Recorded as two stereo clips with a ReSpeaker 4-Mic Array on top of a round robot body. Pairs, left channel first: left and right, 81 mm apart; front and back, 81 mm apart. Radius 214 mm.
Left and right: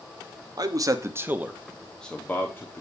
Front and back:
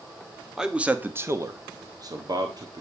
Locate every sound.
0.6 s a man speaking: 100° right, 1.5 m; by 2.8 s 150° left, 2 m